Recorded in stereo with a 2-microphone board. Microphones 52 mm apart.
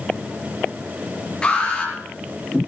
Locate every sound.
1.4 s an alarm: 20° left (ahead or behind), 6 m